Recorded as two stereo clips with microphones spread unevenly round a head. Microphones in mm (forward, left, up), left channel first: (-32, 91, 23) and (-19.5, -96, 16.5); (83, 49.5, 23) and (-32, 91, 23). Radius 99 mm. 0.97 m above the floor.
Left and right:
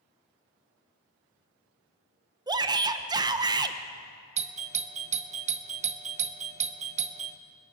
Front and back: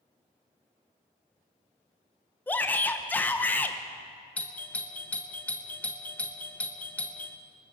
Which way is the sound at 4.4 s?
90° right.